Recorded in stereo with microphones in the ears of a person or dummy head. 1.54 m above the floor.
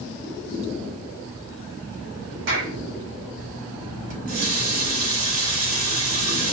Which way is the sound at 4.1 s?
70° right (ahead or behind).